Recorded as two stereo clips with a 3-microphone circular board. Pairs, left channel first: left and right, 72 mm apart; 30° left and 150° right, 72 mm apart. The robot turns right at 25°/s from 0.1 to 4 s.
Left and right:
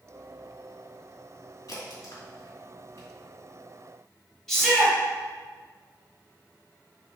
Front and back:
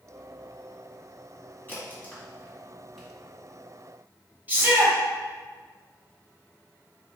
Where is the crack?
85° left, 1.9 m; by 3.1 s 120° left, 1.9 m.